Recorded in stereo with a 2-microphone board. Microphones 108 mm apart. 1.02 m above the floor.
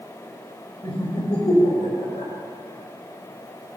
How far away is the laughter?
About 4 m.